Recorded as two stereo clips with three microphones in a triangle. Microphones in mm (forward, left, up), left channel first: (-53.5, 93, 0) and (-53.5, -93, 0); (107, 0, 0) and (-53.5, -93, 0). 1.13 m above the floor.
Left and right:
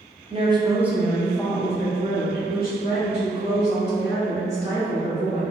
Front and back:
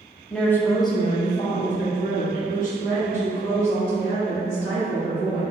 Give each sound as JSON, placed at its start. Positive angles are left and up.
{"t": 0.3, "sound": "a woman speaking", "azimuth_deg": -55, "distance_m": 0.7}